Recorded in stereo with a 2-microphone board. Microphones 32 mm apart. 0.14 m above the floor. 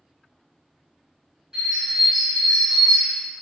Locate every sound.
1.5 s a bird: 20° right (ahead or behind), 1.7 m